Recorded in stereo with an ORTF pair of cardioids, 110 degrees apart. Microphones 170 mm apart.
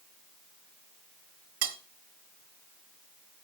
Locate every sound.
1.6 s cutlery clinking: 70° right, 1.5 m